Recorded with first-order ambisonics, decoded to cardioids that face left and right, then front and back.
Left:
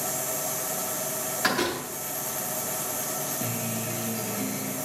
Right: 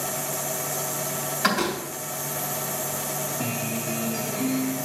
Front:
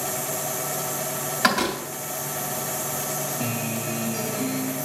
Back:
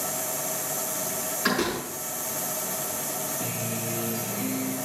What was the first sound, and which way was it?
A door slam, 10° right.